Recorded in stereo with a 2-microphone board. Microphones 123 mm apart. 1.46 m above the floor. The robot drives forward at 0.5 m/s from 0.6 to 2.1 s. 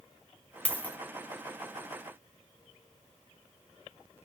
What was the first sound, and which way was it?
A dropped coin, 10° left (ahead or behind).